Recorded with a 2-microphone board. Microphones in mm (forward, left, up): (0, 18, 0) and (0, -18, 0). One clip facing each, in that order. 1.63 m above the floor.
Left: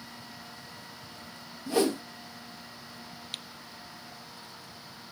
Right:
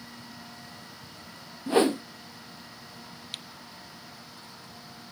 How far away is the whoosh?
About 0.6 m.